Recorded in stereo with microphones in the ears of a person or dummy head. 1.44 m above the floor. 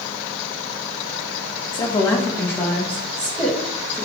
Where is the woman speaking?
25° left (ahead or behind), 1.2 m; by 4.0 s 5° left (ahead or behind), 3 m.